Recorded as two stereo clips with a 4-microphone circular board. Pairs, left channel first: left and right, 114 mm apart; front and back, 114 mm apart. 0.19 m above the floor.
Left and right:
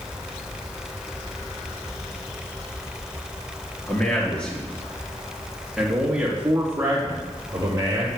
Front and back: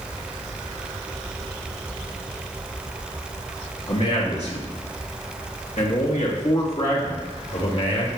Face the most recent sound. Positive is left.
turn(degrees=-30)